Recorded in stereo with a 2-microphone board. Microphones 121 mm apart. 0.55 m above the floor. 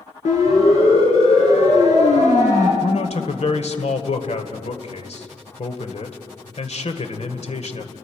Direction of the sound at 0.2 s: 85° left.